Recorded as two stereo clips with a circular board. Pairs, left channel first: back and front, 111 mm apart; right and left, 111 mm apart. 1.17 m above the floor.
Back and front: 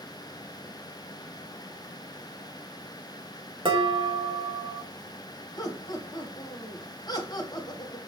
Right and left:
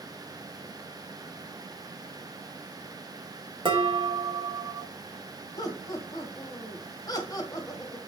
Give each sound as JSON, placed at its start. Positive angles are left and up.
{"t": 3.6, "sound": "dishes clattering", "azimuth_deg": 45, "distance_m": 1.0}
{"t": 5.6, "sound": "laughter", "azimuth_deg": -135, "distance_m": 0.9}